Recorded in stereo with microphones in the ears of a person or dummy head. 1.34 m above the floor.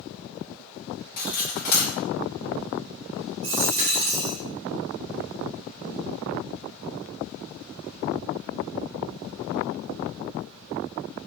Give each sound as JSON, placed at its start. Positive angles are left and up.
{"t": 1.2, "sound": "cutlery clinking", "side_deg": 55, "distance_m": 1.1}
{"t": 3.4, "sound": "a dropped coin", "side_deg": -35, "distance_m": 1.0}